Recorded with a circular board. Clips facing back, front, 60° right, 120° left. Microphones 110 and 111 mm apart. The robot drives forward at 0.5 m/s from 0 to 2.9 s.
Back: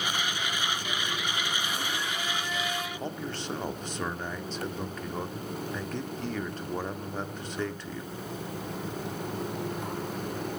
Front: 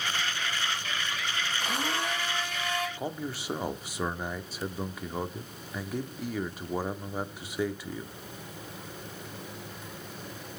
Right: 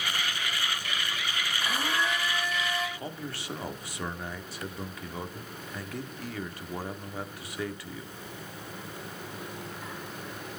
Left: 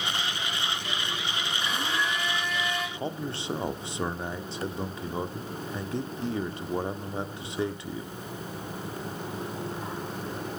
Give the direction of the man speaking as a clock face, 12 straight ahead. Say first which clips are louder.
Even, left 5 dB; 9 o'clock.